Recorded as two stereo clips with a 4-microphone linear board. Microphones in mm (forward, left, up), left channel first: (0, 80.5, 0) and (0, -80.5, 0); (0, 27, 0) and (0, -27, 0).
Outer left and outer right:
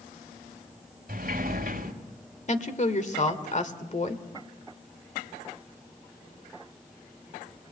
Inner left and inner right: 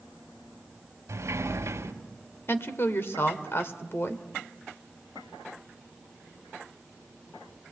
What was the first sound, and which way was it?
A sliding door, 65° right (ahead or behind).